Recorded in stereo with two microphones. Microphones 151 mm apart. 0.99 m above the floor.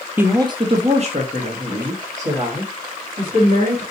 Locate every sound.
0.2 s a woman speaking: 15° right (ahead or behind), 0.5 m; by 3.8 s 70° right (ahead or behind), 2.5 m